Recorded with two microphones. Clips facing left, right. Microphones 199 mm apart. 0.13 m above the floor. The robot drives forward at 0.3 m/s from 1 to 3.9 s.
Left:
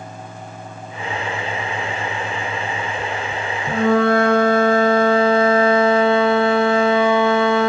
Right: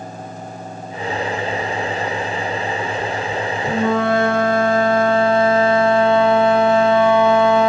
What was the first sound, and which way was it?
A flute, 20° right (ahead or behind).